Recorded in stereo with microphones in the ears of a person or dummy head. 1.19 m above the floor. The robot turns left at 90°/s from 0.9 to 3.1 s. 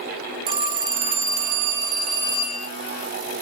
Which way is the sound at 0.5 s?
30° right.